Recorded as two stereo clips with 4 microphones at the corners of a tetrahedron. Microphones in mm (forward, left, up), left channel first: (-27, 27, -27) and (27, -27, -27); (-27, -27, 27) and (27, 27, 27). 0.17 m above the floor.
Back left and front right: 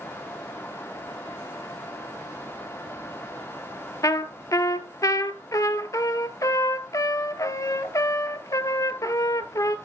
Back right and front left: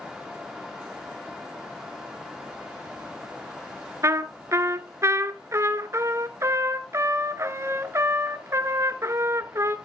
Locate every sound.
4.0 s a trumpet: 95° left, 0.8 m